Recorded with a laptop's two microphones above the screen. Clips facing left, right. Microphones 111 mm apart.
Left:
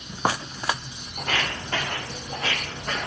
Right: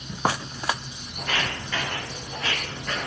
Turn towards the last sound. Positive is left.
turn(degrees=35)  # may be behind; listen again after turning